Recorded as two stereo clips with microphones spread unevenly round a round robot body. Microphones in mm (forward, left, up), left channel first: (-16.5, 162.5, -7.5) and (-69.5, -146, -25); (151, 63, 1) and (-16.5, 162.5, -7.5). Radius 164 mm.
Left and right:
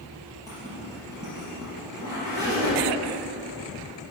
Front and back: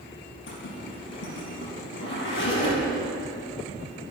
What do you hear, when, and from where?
0.5 s a zipper: 20° right, 4.5 m